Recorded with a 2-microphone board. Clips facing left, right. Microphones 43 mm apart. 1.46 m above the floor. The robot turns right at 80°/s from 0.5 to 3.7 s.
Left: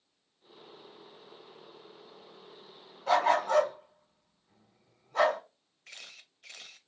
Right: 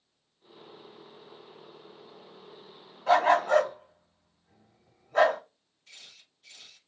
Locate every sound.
3.1 s a dog barking: 25° right (ahead or behind), 1.9 m; by 5.4 s 55° right (ahead or behind), 1.9 m
5.9 s a camera shutter: 65° left (ahead or behind), 0.5 m